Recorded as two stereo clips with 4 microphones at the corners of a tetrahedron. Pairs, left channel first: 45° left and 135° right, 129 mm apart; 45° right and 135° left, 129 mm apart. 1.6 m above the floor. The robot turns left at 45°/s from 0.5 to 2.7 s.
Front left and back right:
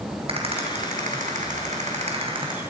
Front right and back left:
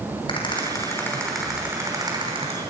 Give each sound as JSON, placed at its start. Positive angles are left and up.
{"t": 0.3, "sound": "a rattle", "azimuth_deg": -95, "distance_m": 6.0}